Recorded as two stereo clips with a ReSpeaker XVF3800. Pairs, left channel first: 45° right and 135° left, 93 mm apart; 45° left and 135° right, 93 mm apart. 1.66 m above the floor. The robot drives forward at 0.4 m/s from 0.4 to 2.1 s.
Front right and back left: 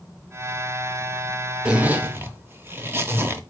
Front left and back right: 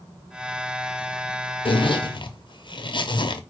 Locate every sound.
1.6 s a zipper: 55° left, 0.7 m; by 3.4 s 70° left, 0.6 m